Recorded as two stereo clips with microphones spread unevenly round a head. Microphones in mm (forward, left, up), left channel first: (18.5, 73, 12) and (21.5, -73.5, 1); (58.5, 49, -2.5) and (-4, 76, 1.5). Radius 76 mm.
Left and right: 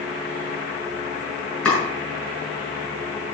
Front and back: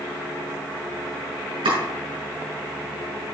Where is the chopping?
175° left, 6 m.